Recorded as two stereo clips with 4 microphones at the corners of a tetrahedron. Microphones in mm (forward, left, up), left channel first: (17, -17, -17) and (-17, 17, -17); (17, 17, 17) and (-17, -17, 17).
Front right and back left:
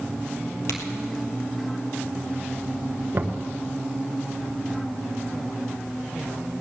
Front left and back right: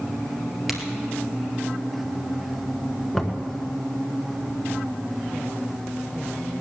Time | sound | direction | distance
0.7 | a crack | 50° right | 2 m
3.1 | knocking | 130° left | 1.3 m